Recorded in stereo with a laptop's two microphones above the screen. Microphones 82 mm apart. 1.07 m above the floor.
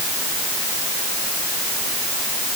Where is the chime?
No chime in this recording.